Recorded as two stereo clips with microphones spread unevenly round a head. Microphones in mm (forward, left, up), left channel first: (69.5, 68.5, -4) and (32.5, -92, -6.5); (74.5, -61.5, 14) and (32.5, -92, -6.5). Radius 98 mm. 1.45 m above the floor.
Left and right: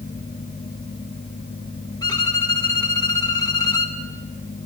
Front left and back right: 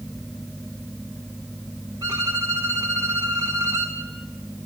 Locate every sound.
2.0 s a violin: 150° left, 1.3 m